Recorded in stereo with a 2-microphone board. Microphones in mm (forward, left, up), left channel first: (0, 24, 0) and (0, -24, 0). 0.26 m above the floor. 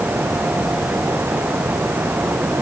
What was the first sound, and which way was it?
Only background noise.